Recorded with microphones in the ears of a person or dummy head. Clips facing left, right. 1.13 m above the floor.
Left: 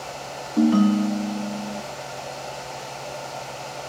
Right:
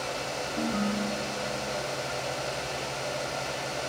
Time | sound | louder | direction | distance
0.6 | a ringtone | left 13 dB | 70° left (ahead or behind) | 0.8 m